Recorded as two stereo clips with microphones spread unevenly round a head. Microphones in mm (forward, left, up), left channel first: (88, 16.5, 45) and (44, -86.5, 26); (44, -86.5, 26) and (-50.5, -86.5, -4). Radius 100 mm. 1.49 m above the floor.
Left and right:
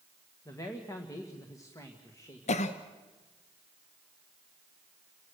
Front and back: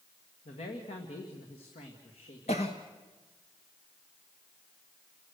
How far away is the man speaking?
About 1.8 m.